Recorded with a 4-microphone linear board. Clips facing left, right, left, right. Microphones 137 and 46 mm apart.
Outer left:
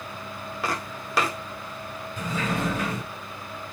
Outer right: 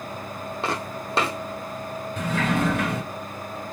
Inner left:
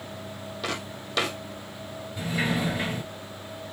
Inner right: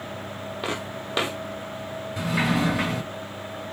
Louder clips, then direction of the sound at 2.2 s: Outer right 4 dB, inner right 3 dB; 70° right (ahead or behind).